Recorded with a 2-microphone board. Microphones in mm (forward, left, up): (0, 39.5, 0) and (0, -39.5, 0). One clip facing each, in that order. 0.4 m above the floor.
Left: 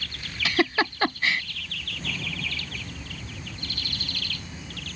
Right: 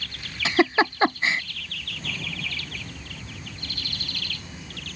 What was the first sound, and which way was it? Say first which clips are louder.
A giggle: right 4 dB; 20° right (ahead or behind).